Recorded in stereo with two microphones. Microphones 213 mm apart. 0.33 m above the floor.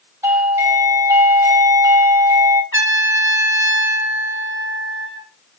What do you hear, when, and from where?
0.2 s a doorbell: 15° right (ahead or behind), 3 m
2.7 s a trumpet: 70° left (ahead or behind), 2.5 m